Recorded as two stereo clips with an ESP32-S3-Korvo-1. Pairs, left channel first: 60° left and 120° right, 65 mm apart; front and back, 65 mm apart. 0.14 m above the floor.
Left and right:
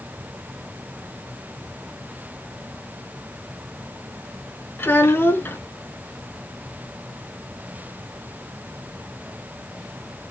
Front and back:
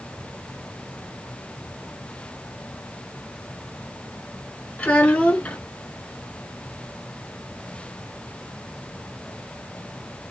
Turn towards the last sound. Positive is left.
turn(degrees=50)